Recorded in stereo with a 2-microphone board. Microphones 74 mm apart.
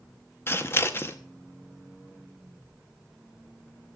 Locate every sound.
0.5 s scissors: 35° left (ahead or behind), 1.2 m